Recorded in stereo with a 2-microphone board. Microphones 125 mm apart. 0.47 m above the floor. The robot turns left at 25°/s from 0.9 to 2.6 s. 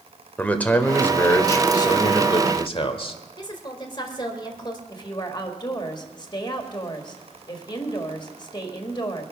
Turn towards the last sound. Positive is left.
turn(degrees=35)  # may be behind; listen again after turning